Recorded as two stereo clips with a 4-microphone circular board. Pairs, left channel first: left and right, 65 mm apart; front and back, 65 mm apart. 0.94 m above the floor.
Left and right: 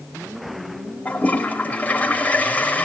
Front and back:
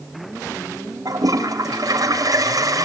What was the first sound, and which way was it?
A toilet flushing, 155° left.